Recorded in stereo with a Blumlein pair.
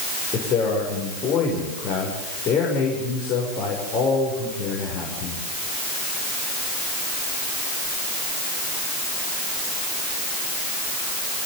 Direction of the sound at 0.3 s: 30° left.